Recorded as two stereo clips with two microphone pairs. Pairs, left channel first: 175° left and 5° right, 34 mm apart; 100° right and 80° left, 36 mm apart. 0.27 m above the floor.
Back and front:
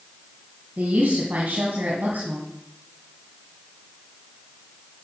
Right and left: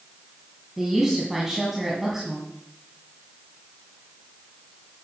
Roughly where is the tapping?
I don't hear tapping.